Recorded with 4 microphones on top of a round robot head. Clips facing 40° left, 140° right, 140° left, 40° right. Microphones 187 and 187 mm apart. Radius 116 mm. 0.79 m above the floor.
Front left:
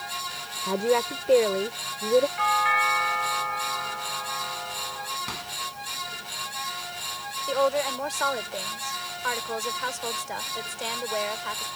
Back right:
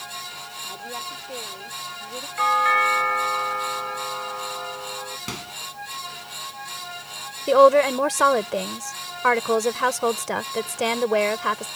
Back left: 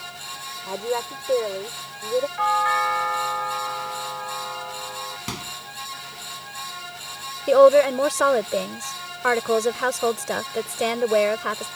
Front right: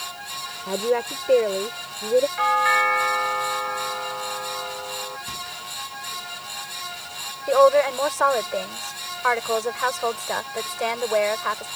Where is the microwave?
160° left.